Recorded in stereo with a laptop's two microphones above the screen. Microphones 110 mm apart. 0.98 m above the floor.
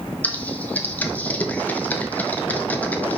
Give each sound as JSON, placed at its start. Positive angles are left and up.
{"t": 0.2, "sound": "typing on a keyboard", "side_deg": 15, "distance_m": 1.0}